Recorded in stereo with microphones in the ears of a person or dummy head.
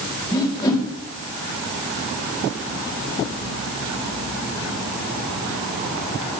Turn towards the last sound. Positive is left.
turn(degrees=25)  # may be behind; listen again after turning